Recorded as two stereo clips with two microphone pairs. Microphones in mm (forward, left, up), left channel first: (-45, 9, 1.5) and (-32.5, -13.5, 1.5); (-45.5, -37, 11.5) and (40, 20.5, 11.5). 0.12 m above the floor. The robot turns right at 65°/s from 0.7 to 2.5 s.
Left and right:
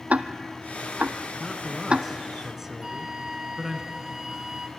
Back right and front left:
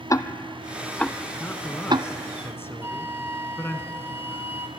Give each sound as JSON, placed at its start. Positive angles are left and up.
{"t": 0.1, "sound": "ticking", "azimuth_deg": -90, "distance_m": 0.7}
{"t": 1.4, "sound": "a man speaking", "azimuth_deg": 170, "distance_m": 1.3}
{"t": 2.8, "sound": "a flute", "azimuth_deg": -10, "distance_m": 1.3}